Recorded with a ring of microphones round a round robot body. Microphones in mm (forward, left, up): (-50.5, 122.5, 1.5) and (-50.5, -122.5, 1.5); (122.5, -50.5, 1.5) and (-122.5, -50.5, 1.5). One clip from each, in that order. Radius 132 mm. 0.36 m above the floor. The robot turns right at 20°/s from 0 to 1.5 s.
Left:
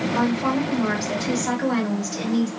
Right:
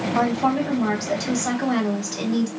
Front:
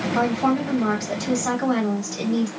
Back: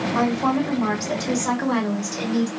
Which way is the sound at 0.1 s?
110° right.